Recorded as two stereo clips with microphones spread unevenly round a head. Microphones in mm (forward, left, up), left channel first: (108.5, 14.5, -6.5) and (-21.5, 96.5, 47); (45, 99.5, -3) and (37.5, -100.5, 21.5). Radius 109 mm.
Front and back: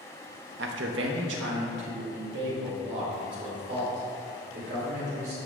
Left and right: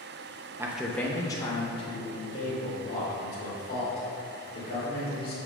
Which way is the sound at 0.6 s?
170° right.